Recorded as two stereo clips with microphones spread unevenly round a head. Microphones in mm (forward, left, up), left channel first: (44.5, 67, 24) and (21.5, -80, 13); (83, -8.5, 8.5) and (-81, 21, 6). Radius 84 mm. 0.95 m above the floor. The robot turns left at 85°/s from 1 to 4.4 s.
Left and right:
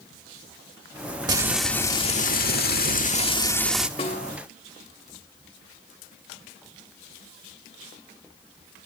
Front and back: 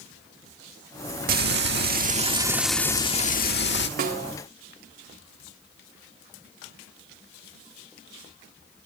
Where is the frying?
160° right, 1.6 m; by 3.9 s 20° right, 1.6 m.